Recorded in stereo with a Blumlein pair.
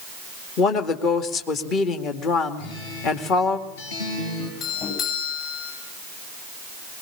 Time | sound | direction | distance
0.6 | a woman speaking | 30° left | 2.5 m
2.6 | a guitar | 50° left | 6.5 m
4.6 | a doorbell | 30° left | 10 m